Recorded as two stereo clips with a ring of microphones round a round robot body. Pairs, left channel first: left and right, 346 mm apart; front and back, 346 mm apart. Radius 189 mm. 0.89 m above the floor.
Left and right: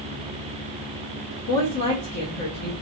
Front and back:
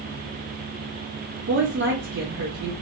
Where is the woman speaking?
125° left, 1.1 m.